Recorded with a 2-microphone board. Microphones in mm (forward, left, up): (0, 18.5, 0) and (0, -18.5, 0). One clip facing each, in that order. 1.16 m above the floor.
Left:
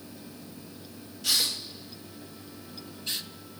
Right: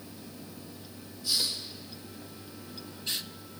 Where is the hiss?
80° left, 1.4 m.